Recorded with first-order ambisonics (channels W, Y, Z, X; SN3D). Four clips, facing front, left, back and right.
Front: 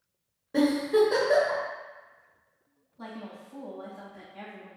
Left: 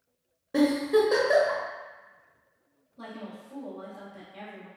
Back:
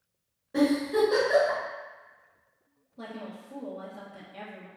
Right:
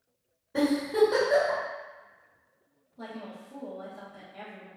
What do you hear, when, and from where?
0.5 s a giggle: 80° left, 1.0 m
3.0 s a woman speaking: 175° left, 0.9 m